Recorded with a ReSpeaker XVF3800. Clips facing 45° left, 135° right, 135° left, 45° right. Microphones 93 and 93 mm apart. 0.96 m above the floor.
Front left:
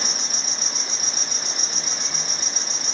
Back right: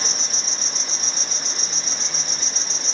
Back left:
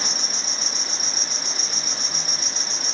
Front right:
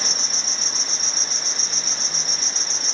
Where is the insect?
90° left, 1.3 m.